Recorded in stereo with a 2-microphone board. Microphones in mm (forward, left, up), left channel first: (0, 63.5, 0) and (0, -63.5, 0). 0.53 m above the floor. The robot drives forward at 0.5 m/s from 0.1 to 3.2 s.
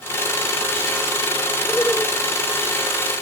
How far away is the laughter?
About 1.4 m.